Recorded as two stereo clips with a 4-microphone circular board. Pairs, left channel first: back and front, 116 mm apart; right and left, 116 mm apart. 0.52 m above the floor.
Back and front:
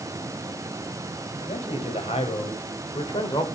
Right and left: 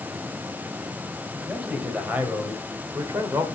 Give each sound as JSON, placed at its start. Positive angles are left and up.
{"t": 1.4, "sound": "a man speaking", "azimuth_deg": 170, "distance_m": 4.0}